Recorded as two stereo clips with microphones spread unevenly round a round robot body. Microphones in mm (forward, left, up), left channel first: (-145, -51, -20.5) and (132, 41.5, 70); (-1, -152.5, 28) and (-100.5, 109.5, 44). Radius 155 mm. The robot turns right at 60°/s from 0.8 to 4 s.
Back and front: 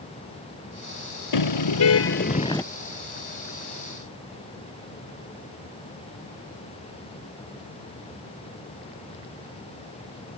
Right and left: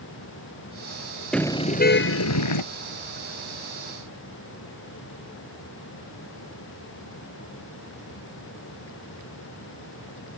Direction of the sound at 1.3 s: 155° right.